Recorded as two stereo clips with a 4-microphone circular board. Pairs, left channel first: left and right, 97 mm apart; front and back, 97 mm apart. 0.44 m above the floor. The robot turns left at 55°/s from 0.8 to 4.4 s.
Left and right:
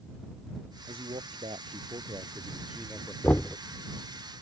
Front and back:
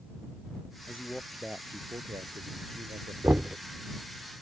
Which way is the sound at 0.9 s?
70° right.